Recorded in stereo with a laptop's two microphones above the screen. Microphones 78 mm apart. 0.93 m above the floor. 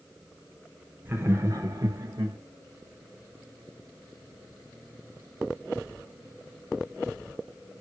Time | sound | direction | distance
1.1 | laughter | 25° right (ahead or behind) | 1.0 m